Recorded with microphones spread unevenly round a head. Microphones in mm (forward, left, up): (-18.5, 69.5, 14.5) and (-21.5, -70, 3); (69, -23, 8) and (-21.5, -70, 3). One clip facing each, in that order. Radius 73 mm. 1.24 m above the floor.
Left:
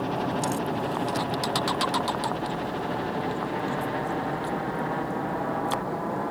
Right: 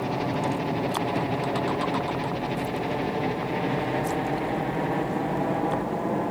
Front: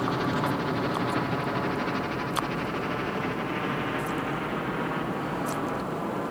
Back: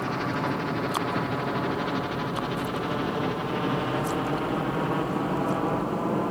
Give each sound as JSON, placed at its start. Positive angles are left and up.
{"t": 0.0, "sound": "a helicopter", "azimuth_deg": -40}